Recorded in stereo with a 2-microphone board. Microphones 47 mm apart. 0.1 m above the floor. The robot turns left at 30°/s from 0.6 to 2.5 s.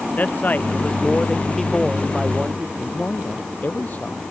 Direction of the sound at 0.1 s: 40° left.